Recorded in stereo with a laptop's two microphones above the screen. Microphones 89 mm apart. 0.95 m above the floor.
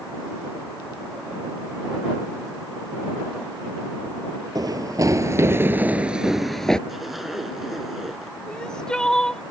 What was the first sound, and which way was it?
Running footsteps, 50° right (ahead or behind).